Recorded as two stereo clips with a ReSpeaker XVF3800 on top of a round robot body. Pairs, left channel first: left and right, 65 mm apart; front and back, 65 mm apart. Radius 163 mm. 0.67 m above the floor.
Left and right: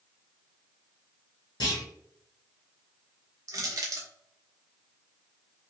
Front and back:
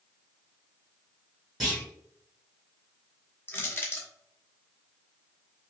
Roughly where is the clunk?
Left.